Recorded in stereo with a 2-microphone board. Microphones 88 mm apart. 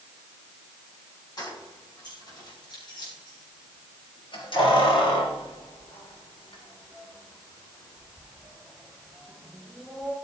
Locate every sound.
1.4 s keys jangling: 50° left (ahead or behind), 5 m; by 10.1 s 5° left (ahead or behind), 4 m